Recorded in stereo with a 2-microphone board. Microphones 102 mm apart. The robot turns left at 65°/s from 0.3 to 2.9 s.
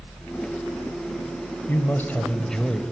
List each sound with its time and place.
1.7 s a man speaking: 20° left (ahead or behind), 1.0 m; by 2.8 s centre (ahead or behind), 1.0 m